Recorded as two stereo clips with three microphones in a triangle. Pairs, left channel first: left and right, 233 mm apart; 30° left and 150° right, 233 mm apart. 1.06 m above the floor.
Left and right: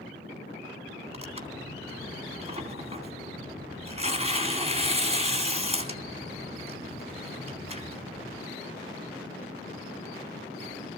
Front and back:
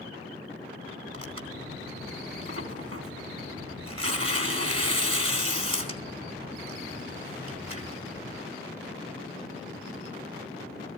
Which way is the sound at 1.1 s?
150° right.